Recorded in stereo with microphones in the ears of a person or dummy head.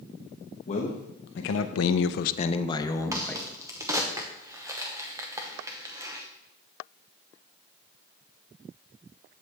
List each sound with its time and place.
0.7 s a man speaking: 40° left (ahead or behind), 1.1 m; by 3.5 s 5° left (ahead or behind), 1.2 m
3.1 s a crack: 15° right (ahead or behind), 0.9 m